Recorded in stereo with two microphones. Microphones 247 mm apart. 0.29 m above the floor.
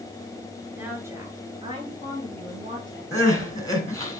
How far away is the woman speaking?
About 4 m.